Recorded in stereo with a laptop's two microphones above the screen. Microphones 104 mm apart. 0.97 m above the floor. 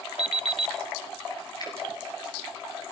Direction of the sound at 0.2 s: 70° right (ahead or behind).